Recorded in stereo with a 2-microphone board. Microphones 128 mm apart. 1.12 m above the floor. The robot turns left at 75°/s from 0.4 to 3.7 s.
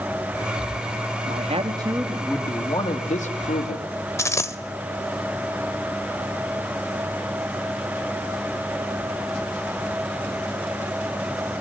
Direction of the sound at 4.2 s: 20° left (ahead or behind).